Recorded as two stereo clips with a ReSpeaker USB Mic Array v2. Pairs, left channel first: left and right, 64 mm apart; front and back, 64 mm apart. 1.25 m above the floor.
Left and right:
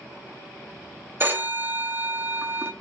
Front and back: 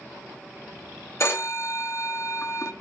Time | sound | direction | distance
1.2 | a phone ringing | 40° right | 1.3 m